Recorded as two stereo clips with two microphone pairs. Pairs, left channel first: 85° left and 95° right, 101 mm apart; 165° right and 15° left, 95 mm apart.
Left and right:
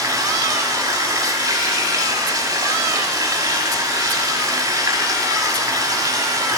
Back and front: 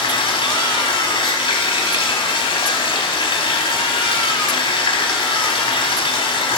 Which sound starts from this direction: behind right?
Running water, at 0.0 s.